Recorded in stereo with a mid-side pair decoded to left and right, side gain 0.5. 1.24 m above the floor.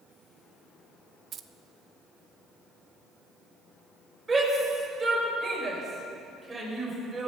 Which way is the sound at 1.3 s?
45° right.